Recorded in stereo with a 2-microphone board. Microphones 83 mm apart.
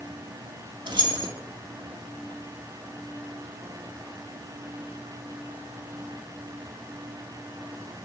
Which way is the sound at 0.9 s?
60° right (ahead or behind).